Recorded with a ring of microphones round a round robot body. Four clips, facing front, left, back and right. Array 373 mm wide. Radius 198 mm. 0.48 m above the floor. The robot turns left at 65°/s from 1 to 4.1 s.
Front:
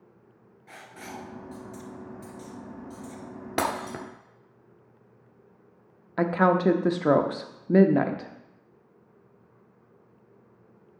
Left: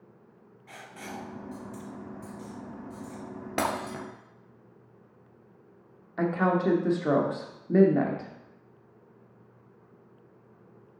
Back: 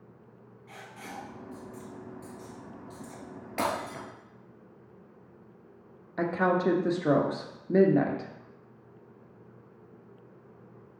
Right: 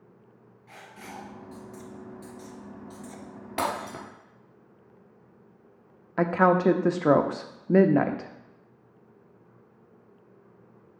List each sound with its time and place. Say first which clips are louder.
0.7 s writing: left 2 dB, front 2 dB; 30° left, 1.9 m; by 3.2 s 115° right, 1.9 m
3.6 s breaking glass: even, front 2 dB; 25° left, 1.5 m; by 4.0 s straight ahead, 1.5 m
6.2 s a woman speaking: right 4 dB, front 4 dB; 55° right, 0.8 m